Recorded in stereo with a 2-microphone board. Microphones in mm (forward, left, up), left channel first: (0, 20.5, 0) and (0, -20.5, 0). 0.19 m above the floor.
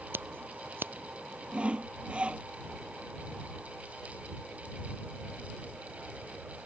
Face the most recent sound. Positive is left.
turn(degrees=-30)  # may be behind; listen again after turning